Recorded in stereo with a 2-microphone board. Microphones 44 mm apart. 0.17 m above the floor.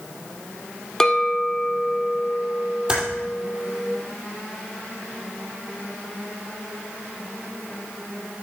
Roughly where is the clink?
Centre.